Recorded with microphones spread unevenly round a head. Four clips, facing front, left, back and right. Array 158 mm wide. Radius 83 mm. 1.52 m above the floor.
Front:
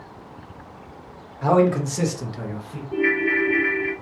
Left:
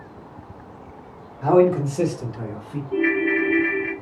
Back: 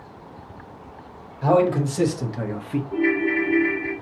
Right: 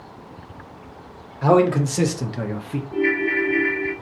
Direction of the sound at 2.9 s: 80° left.